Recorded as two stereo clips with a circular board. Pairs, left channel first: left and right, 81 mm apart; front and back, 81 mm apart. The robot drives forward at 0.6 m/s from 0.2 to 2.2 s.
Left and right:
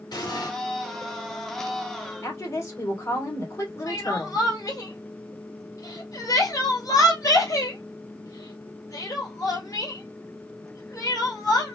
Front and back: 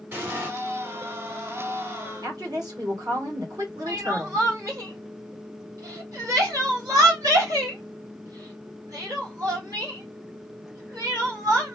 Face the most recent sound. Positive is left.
turn(degrees=135)